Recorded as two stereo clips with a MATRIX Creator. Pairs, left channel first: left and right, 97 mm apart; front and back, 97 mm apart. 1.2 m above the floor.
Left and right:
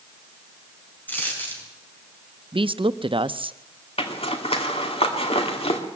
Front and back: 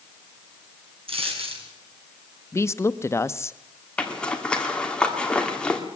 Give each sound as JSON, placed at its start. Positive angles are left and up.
{"t": 1.1, "sound": "a dropped coin", "azimuth_deg": 160, "distance_m": 5.0}
{"t": 2.5, "sound": "a woman speaking", "azimuth_deg": -60, "distance_m": 0.7}
{"t": 4.0, "sound": "a zipper", "azimuth_deg": 80, "distance_m": 2.5}